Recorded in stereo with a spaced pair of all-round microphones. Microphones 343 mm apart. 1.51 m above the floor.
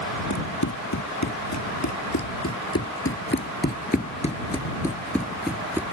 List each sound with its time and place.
0.3 s running footsteps: 60° left (ahead or behind); by 5.8 s 5° right (ahead or behind)